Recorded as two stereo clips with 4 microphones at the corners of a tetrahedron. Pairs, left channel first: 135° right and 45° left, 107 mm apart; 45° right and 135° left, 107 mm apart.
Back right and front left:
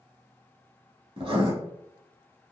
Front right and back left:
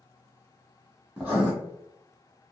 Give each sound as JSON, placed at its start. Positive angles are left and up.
{"t": 1.2, "sound": "writing", "azimuth_deg": 60, "distance_m": 1.0}